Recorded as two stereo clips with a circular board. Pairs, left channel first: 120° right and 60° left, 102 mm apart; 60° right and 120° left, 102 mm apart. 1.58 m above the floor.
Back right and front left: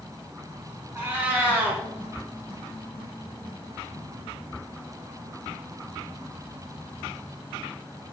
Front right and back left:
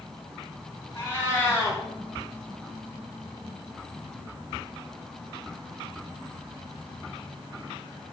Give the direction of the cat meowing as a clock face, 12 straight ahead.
12 o'clock.